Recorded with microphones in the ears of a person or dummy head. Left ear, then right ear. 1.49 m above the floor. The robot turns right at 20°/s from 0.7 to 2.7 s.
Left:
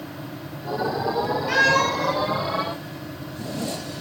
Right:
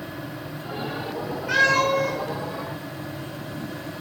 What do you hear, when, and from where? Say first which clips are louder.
1.5 s a cat meowing: right 1 dB; 35° left (ahead or behind), 1.5 m; by 2.1 s 25° left (ahead or behind), 1.5 m